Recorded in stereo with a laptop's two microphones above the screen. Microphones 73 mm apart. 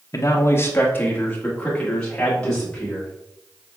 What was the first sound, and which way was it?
A man speaking, 55° left (ahead or behind).